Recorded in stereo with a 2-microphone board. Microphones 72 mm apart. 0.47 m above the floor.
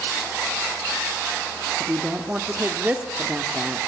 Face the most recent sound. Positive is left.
turn(degrees=-20)  # may be behind; listen again after turning